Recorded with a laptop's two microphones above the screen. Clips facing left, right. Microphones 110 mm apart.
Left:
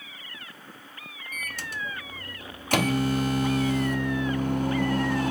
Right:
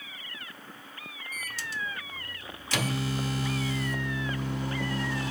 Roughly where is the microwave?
Left.